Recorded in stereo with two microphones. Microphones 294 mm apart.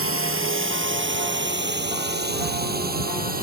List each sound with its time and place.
0.0 s a drone: 45° right (ahead or behind); by 3.4 s 30° right (ahead or behind)